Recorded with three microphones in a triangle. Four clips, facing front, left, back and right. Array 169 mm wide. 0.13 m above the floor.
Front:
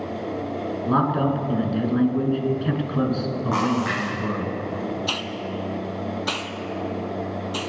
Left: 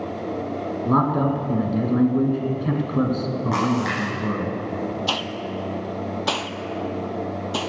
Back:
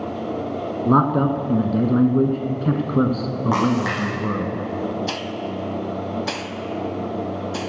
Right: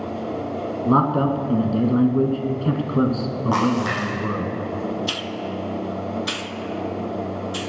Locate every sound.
0.8 s a man speaking: 165° right, 1.5 m
3.5 s a splash: 165° right, 6 m
5.1 s a hiss: 100° left, 0.7 m